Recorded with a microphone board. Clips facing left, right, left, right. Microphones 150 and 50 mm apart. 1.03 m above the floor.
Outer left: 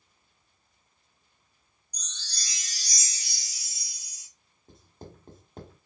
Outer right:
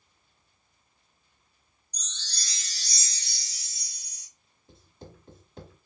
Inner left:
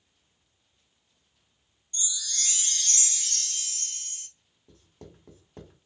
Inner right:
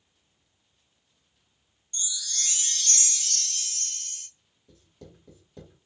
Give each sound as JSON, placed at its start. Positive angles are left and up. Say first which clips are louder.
{"t": 1.9, "sound": "a chime", "louder": "outer right 1 dB, even", "side_deg": 10, "distance_m": 1.8}
{"t": 4.7, "sound": "writing", "louder": "outer left 2 dB, even", "side_deg": 45, "distance_m": 1.1}